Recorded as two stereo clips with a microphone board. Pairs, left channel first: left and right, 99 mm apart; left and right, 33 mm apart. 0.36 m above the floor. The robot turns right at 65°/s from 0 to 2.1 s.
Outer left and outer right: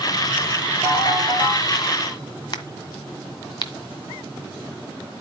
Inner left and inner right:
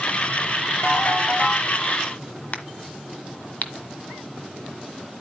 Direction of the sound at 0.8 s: 95° left.